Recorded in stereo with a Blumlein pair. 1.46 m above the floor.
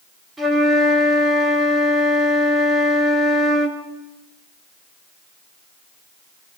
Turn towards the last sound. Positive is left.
turn(degrees=-10)